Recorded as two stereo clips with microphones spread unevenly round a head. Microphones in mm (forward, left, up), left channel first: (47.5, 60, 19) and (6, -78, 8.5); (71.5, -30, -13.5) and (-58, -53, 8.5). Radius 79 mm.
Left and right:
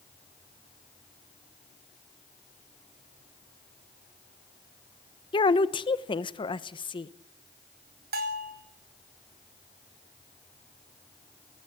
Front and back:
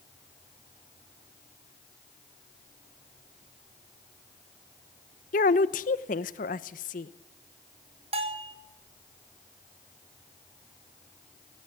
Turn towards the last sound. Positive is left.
turn(degrees=-125)